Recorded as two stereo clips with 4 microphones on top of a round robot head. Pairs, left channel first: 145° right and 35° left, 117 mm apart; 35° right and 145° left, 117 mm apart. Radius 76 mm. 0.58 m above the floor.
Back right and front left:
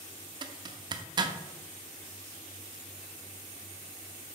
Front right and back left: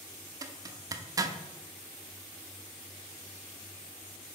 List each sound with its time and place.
0.4 s a zipper: 85° left, 0.6 m